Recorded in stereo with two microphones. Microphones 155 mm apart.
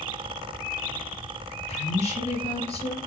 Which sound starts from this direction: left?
A woman speaking, at 1.7 s.